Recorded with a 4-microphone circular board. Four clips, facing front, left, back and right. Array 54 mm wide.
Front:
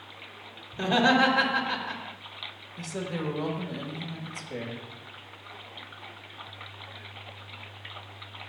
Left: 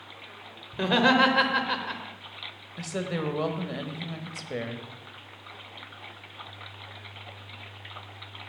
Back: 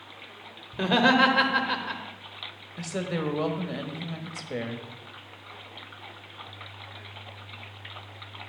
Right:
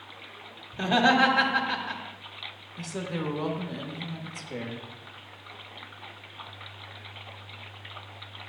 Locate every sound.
0.7 s laughter: 130° left, 1.5 m
2.8 s a woman speaking: 130° left, 1.2 m